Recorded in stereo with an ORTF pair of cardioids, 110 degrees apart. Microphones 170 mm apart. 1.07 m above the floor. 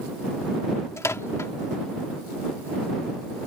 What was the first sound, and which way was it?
A microwave, 15° left.